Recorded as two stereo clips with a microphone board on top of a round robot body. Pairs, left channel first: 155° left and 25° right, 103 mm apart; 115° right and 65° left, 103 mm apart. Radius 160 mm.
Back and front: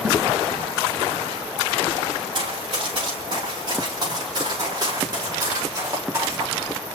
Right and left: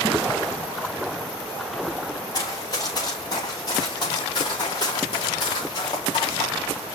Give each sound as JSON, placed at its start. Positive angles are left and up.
{"t": 2.3, "sound": "running footsteps", "azimuth_deg": -60, "distance_m": 6.0}